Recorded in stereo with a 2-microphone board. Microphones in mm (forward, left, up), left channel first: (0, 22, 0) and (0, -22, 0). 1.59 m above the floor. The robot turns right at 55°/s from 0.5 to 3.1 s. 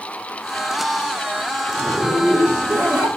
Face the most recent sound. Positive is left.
turn(degrees=-90)